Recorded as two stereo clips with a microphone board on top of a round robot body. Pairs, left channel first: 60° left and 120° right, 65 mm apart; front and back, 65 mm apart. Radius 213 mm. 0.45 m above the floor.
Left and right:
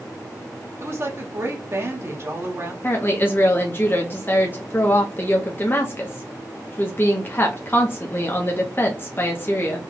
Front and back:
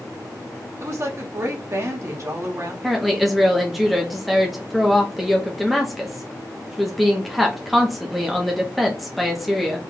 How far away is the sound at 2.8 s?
About 1.0 m.